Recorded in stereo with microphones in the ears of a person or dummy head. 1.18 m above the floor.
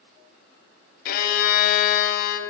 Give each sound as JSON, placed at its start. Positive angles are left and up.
{"t": 1.1, "sound": "a violin", "side_deg": 55, "distance_m": 0.9}